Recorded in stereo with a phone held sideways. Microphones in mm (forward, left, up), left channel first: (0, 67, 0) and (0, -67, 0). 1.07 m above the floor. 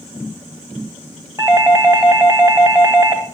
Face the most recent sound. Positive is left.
turn(degrees=-20)  # may be behind; listen again after turning